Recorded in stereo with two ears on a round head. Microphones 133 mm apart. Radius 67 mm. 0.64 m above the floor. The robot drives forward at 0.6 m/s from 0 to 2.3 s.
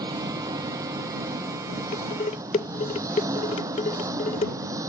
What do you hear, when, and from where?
0.0 s an engine running: 30° right (ahead or behind); by 4.9 s 25° right (ahead or behind)
1.9 s dishes clattering: 55° left (ahead or behind); by 4.5 s 50° left (ahead or behind)